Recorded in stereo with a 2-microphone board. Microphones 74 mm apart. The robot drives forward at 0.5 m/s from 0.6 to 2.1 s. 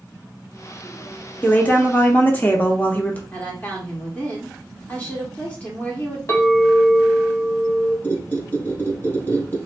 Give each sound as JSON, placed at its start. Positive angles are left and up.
{"t": 1.4, "sound": "a woman speaking", "side_deg": 20, "distance_m": 0.9}
{"t": 3.3, "sound": "a woman speaking", "side_deg": 20, "distance_m": 1.3}
{"t": 6.3, "sound": "a clink", "side_deg": 40, "distance_m": 1.4}
{"t": 8.0, "sound": "a squeak", "side_deg": 25, "distance_m": 1.2}